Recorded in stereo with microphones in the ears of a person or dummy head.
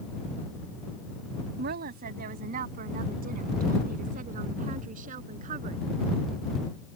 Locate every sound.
1.6 s a woman speaking: 50° right (ahead or behind); by 5.8 s 40° right (ahead or behind)